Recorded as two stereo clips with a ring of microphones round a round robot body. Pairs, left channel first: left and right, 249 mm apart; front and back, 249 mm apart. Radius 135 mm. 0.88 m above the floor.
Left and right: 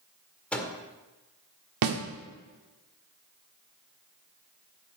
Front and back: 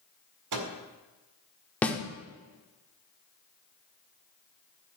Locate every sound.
0.5 s a microwave: 175° left, 1.9 m
1.8 s a snare drum: 85° right, 1.5 m